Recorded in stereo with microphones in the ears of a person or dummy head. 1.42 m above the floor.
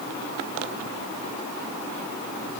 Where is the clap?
I don't hear a clap.